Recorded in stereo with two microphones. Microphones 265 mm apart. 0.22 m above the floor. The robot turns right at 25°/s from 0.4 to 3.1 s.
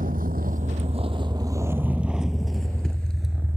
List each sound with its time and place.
0.0 s a vehicle: 30° right (ahead or behind); by 3.6 s 10° right (ahead or behind)